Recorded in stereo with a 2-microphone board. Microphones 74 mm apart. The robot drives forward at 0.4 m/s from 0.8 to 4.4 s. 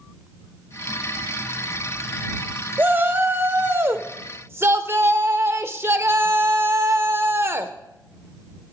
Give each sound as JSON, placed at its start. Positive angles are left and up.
{"t": 2.8, "sound": "a shout", "side_deg": -25, "distance_m": 1.4}